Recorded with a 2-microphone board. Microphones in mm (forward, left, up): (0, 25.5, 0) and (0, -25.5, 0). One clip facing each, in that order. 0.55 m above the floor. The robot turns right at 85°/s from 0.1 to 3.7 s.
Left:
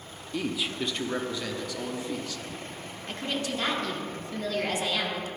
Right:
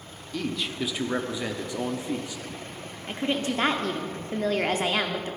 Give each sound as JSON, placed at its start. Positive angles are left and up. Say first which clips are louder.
{"t": 0.3, "sound": "a man speaking", "louder": "even", "side_deg": 10, "distance_m": 0.7}
{"t": 3.1, "sound": "a woman speaking", "louder": "right 4 dB", "azimuth_deg": -160, "distance_m": 0.9}